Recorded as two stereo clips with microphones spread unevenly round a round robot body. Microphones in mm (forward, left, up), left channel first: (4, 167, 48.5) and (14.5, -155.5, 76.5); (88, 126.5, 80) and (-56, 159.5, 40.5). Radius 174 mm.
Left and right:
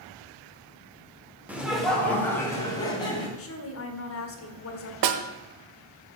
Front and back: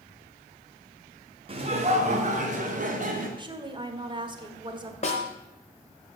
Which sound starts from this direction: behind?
Laughter, at 1.5 s.